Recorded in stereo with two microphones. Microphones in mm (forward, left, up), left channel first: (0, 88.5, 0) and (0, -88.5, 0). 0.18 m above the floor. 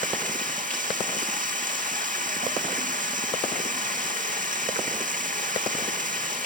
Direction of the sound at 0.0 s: 50° right (ahead or behind).